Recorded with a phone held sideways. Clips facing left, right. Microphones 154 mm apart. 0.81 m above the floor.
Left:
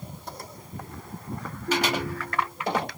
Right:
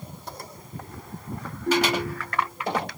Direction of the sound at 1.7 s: 65° right (ahead or behind).